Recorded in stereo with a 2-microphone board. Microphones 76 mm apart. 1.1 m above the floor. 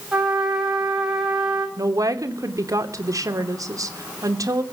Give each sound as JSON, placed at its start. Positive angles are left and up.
{"t": 0.1, "sound": "a trumpet", "side_deg": -10, "distance_m": 7.5}
{"t": 1.8, "sound": "a woman speaking", "side_deg": -50, "distance_m": 3.0}